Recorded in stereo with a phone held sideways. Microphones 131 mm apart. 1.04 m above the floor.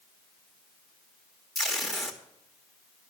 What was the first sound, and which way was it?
Tape being pulled, centre (ahead or behind).